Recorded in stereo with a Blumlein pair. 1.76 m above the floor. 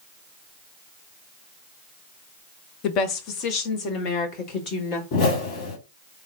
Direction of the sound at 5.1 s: 40° left.